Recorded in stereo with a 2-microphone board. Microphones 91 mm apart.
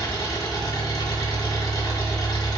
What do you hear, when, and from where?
0.0 s an engine running: 45° left (ahead or behind), 1.5 m